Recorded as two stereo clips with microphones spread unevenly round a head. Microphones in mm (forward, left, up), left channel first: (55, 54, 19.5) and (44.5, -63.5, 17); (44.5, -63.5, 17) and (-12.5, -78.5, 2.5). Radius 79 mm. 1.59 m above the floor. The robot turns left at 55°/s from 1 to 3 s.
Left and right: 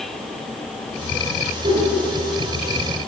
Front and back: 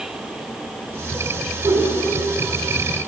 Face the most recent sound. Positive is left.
turn(degrees=140)